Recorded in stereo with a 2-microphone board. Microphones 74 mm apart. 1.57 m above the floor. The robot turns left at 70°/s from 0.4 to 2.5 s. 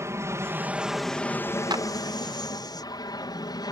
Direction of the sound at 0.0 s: 140° right.